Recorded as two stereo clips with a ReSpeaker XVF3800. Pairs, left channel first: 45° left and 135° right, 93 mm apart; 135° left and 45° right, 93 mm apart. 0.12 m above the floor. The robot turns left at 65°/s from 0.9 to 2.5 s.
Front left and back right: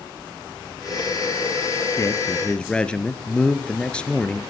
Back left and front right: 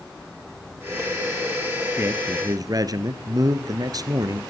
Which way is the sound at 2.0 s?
5° left.